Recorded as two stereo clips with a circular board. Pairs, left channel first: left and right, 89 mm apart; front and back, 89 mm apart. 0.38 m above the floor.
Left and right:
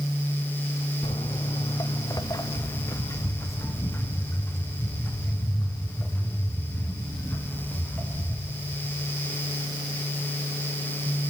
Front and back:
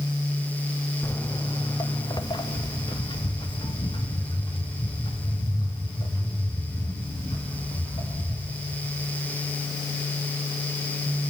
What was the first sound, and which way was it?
Footsteps, 65° left.